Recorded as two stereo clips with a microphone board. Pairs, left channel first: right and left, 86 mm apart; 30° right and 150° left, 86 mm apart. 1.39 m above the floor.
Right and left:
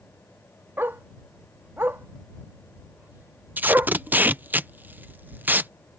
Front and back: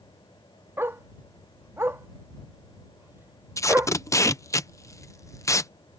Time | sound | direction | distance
0.8 | a dog barking | 125° left | ?
3.6 | tape being pulled | 20° left | ?